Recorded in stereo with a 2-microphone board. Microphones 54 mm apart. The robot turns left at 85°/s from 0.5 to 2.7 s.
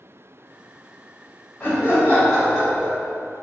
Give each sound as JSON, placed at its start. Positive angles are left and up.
{"t": 1.6, "sound": "laughter", "azimuth_deg": 95, "distance_m": 1.8}